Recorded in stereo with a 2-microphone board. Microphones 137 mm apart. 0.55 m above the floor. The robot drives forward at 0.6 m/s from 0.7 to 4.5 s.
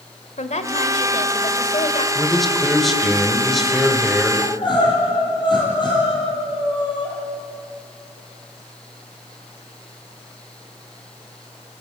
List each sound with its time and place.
0.4 s a woman speaking: 65° left (ahead or behind), 1.8 m; by 2.0 s 50° left (ahead or behind), 2 m
2.1 s a man speaking: centre (ahead or behind), 1.9 m
4.4 s crying: 40° left (ahead or behind), 5.5 m; by 7.1 s 35° left (ahead or behind), 5.5 m